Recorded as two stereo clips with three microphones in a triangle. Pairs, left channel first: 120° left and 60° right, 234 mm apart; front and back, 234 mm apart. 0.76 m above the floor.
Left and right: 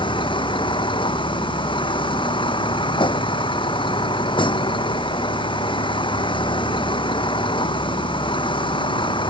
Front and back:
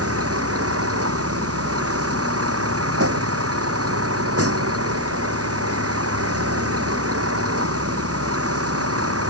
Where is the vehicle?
170° right.